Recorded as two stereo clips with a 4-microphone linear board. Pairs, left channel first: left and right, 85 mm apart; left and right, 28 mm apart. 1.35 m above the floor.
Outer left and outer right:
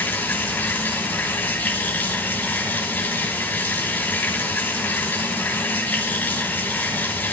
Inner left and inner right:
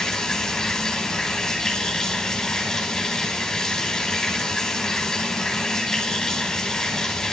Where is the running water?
15° left (ahead or behind), 4.5 m.